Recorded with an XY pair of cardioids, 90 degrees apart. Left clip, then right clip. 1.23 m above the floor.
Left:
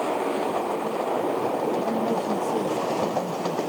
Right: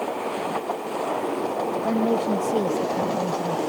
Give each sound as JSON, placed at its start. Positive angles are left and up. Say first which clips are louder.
{"t": 1.8, "sound": "a woman speaking", "louder": "right 2 dB", "azimuth_deg": -45}